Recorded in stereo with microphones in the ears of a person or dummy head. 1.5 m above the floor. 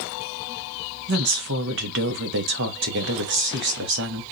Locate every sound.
1.1 s a woman speaking: 60° right (ahead or behind), 1.0 m